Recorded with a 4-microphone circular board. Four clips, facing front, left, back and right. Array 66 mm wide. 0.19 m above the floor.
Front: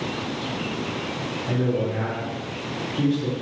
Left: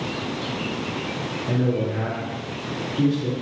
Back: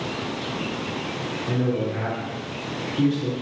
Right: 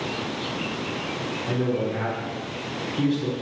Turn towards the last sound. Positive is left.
turn(degrees=-90)